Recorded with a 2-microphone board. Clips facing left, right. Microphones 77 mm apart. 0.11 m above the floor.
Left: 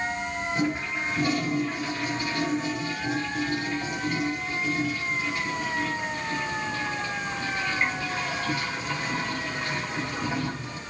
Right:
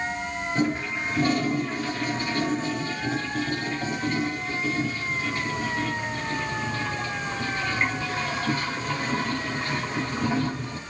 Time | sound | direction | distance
0.6 | a toilet flushing | 40° right (ahead or behind) | 3.5 m